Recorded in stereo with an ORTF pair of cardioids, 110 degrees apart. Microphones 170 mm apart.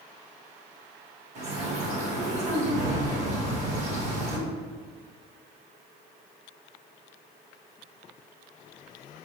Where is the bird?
40° right, 1.3 m.